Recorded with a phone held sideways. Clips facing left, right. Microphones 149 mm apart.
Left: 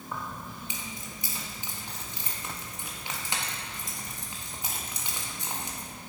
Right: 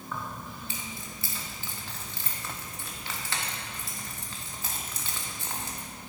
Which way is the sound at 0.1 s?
20° left (ahead or behind).